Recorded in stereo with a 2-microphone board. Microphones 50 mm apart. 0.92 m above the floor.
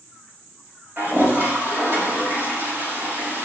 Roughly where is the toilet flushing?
Right.